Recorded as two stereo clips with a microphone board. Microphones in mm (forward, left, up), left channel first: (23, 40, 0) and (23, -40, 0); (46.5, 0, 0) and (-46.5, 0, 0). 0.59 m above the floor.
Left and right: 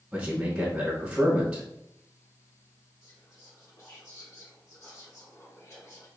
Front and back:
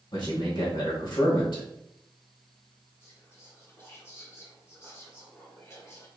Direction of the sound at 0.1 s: 15° right.